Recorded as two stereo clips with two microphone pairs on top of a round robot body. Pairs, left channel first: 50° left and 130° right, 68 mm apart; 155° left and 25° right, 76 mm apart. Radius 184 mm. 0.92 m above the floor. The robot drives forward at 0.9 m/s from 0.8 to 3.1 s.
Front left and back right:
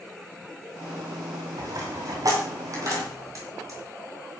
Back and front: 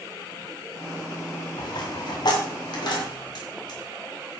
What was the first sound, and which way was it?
A dropped coin, 170° right.